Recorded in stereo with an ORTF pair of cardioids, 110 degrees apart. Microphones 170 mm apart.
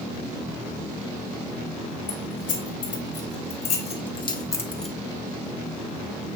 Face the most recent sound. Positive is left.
turn(degrees=-5)